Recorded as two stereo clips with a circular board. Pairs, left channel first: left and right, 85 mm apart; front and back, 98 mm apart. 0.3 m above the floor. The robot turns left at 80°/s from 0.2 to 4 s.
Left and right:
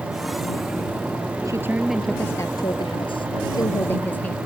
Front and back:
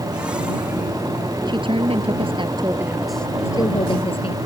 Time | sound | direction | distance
1.4 | a woman speaking | 140° right | ?